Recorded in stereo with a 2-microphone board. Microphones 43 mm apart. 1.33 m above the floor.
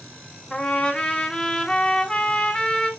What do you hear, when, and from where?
0.5 s a trumpet: 15° left (ahead or behind), 1.5 m